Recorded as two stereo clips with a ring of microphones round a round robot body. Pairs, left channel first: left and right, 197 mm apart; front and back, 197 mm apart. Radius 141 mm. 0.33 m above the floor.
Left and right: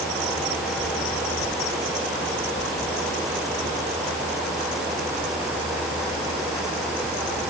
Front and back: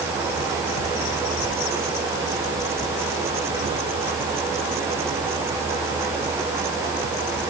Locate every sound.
Only background noise.